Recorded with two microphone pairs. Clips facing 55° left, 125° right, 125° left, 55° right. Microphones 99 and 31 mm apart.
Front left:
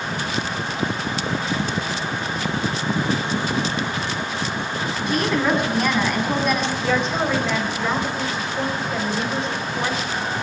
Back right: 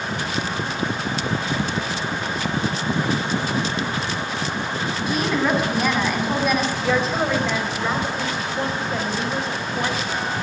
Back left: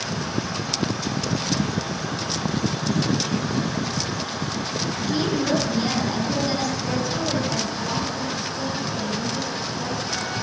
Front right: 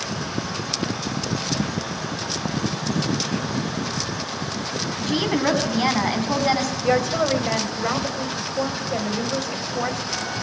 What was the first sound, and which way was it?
A woman speaking, 35° right.